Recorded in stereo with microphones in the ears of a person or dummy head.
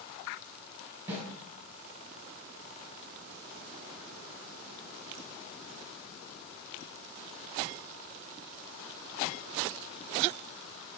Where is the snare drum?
20° right (ahead or behind), 3.5 m.